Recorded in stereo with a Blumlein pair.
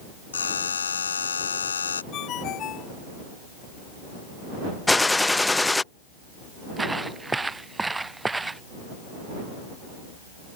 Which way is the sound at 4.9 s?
5° left.